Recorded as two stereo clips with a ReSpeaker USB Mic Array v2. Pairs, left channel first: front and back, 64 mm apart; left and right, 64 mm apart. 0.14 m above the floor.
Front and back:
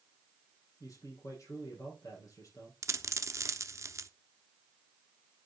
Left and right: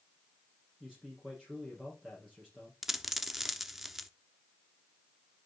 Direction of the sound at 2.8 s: 175° right.